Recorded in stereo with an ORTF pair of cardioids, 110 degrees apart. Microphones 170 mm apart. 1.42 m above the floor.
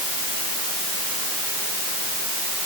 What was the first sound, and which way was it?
Only background noise.